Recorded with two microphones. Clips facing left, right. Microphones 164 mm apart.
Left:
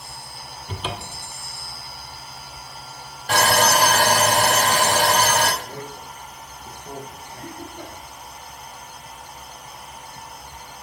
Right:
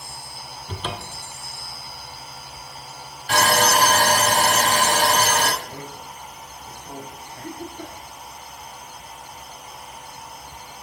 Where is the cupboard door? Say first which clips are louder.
Even; 10° left (ahead or behind), 0.6 m.